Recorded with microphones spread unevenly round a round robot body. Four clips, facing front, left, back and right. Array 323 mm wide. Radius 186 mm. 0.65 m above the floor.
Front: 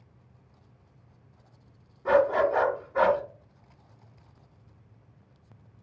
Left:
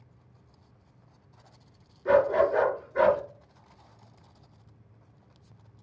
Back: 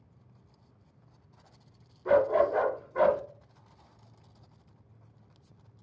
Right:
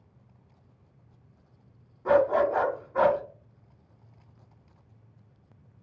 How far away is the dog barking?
About 2 m.